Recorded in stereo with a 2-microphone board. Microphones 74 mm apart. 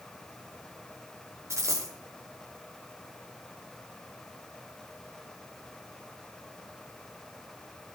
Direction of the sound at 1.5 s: 40° right (ahead or behind).